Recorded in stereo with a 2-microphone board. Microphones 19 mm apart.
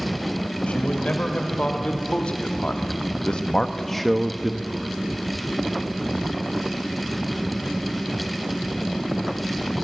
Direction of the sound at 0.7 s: 85° left.